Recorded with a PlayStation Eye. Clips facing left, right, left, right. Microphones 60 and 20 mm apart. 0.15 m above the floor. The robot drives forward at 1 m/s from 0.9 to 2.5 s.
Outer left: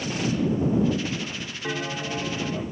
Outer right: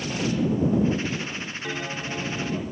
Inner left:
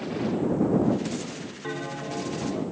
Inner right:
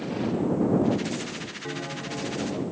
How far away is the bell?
About 1.1 m.